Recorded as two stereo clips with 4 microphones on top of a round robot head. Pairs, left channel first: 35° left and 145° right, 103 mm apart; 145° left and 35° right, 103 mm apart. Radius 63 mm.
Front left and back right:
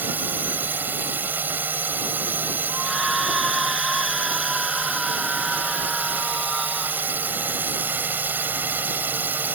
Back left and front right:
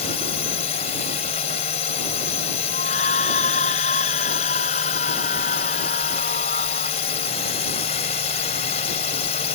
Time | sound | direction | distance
0.0 | a drone | 145° left | ?
2.7 | a scream | 130° left | ?